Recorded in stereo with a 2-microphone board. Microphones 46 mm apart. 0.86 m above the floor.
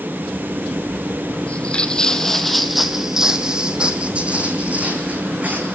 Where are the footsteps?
30° left (ahead or behind), 1.3 m; by 5.7 s 35° right (ahead or behind), 3 m.